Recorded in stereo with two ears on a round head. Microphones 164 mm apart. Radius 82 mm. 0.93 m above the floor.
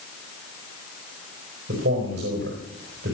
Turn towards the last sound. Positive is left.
turn(degrees=-60)  # may be behind; listen again after turning